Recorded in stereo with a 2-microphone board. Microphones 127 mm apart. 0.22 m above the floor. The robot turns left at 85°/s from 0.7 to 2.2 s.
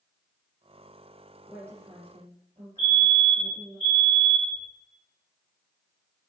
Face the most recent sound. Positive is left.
turn(degrees=-25)  # may be behind; listen again after turning